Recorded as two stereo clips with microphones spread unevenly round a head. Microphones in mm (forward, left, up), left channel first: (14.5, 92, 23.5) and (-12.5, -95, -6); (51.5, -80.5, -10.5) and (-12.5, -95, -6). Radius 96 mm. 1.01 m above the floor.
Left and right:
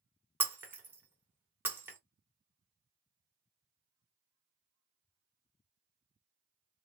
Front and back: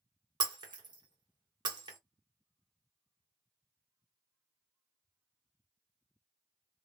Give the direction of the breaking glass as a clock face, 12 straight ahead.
6 o'clock.